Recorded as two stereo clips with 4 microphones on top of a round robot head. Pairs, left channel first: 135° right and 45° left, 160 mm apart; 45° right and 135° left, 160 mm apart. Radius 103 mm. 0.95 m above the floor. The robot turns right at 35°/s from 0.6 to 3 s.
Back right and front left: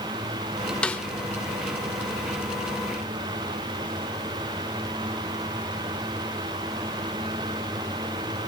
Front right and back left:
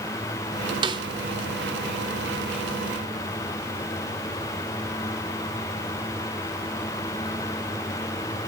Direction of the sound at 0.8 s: 150° left.